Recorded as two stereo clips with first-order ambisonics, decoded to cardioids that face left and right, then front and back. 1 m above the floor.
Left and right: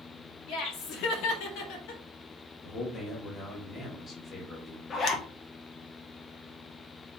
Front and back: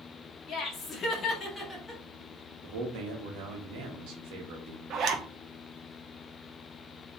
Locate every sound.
0.5 s laughter: 55° left, 1.9 m; by 2.0 s 85° left, 1.6 m
2.6 s a man speaking: 160° left, 1.4 m
4.9 s a zipper: 145° left, 0.7 m